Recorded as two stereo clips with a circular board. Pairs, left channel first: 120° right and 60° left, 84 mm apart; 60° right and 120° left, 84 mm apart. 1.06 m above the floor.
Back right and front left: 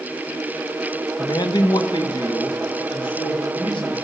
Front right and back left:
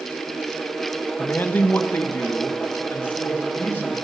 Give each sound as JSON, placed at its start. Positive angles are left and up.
{"t": 1.2, "sound": "a man speaking", "azimuth_deg": -120, "distance_m": 0.8}